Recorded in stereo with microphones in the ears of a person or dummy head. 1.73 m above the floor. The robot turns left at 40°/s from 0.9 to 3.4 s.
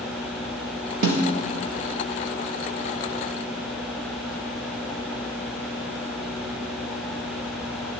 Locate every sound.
1.0 s a snare drum: 60° right (ahead or behind), 1.3 m; by 1.3 s 55° right (ahead or behind), 1.3 m